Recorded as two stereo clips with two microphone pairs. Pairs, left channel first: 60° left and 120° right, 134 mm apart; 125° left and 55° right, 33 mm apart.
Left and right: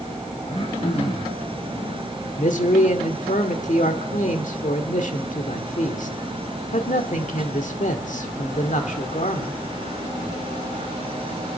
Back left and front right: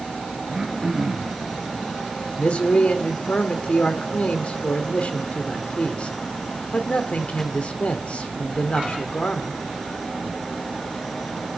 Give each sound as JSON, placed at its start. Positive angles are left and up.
{"t": 0.5, "sound": "throat clearing", "azimuth_deg": 25, "distance_m": 3.5}
{"t": 2.4, "sound": "a man speaking", "azimuth_deg": 75, "distance_m": 1.8}